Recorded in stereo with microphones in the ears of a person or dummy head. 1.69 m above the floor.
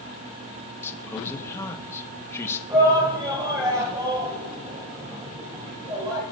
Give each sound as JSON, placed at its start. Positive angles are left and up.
{"t": 0.8, "sound": "a man speaking", "side_deg": 15, "distance_m": 1.6}
{"t": 2.7, "sound": "a shout", "side_deg": -15, "distance_m": 6.0}